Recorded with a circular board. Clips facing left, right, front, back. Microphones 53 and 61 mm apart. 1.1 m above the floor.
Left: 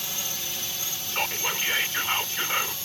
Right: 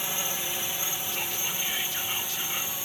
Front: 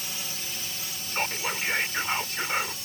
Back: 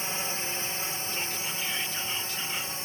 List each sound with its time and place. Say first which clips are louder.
0.0 s a drone: right 3 dB, back 5 dB; 145° right; by 2.9 s 150° right
1.1 s whispering: left 5 dB, front 5 dB; 40° left